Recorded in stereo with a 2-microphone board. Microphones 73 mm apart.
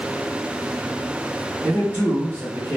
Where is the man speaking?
25° right (ahead or behind), 1.2 m.